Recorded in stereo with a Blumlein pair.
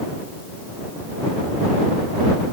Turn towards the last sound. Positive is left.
No sound to turn to.